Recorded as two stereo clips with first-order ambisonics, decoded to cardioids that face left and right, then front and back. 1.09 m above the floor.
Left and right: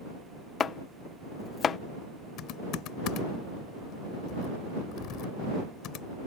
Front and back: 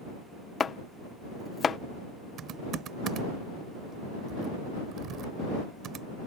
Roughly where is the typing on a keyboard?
Behind left.